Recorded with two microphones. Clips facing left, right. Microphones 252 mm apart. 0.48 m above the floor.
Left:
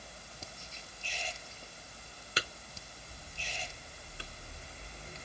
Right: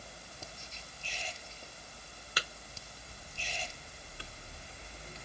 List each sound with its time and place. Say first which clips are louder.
2.4 s tapping: left 4 dB; 25° left (ahead or behind), 0.9 m